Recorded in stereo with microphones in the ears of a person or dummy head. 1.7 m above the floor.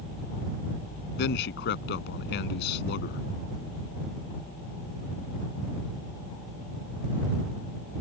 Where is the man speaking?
55° left (ahead or behind).